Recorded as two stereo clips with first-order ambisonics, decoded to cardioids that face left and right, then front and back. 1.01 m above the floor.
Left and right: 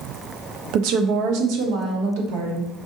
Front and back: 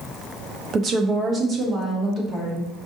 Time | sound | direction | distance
0.7 | a woman speaking | 120° right | 0.6 m